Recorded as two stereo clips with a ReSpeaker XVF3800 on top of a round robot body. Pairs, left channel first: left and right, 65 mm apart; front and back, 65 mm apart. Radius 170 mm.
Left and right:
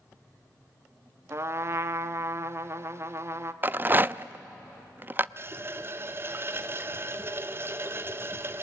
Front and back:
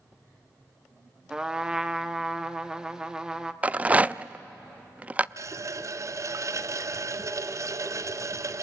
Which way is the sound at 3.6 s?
125° right.